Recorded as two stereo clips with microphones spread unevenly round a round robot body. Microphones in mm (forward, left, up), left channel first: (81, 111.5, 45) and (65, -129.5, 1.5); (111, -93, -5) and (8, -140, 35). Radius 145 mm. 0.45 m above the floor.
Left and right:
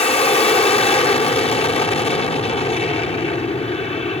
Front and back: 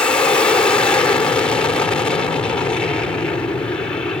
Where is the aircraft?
30° left.